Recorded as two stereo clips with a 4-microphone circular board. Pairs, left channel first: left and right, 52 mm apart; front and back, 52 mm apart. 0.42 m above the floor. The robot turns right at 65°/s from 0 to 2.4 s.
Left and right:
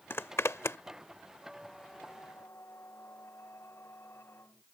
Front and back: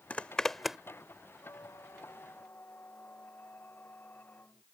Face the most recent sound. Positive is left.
turn(degrees=50)